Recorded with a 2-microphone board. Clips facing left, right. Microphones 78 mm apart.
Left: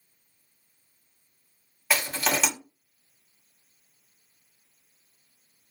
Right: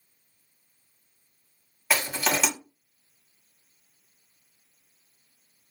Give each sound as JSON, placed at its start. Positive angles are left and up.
{"t": 1.9, "sound": "crushing", "side_deg": -5, "distance_m": 1.3}